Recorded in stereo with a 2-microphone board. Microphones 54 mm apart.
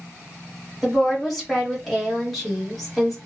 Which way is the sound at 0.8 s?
Centre (ahead or behind).